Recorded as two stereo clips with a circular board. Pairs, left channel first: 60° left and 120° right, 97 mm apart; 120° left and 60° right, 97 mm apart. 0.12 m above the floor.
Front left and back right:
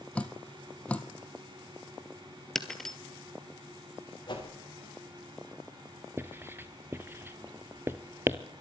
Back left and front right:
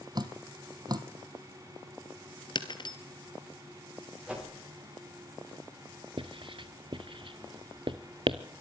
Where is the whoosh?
20° left, 8.5 m.